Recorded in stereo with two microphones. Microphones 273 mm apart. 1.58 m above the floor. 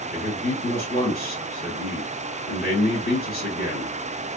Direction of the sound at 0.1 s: 35° left (ahead or behind).